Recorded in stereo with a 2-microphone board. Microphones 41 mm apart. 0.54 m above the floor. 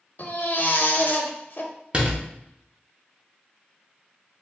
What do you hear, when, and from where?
0.2 s a baby crying: 45° left (ahead or behind), 0.5 m
1.9 s a door slam: 30° right (ahead or behind), 0.7 m